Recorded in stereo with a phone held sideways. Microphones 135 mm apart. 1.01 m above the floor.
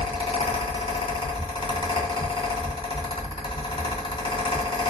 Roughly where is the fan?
Left.